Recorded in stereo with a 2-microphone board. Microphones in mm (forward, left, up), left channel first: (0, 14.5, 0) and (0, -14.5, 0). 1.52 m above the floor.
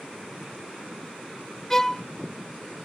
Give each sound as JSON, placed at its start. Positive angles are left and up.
{"t": 1.7, "sound": "a violin", "side_deg": 10}